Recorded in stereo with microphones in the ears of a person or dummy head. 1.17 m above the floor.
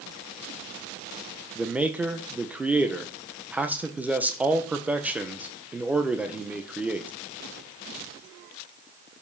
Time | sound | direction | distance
1.6 | a man speaking | 5° right (ahead or behind) | 0.8 m